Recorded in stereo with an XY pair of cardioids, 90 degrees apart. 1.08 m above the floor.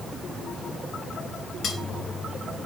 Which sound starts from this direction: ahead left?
Cutlery clinking, at 1.6 s.